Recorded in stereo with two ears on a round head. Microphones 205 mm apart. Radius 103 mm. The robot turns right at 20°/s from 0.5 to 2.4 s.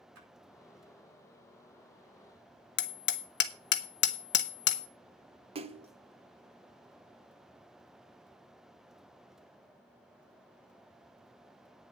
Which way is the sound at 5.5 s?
25° right (ahead or behind).